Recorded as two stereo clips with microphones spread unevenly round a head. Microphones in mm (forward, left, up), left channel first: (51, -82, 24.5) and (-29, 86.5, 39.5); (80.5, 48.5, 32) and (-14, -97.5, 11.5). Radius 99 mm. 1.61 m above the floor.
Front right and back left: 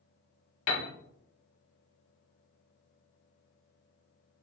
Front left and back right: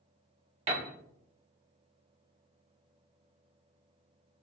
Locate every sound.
0.7 s a piano: 65° right, 1.1 m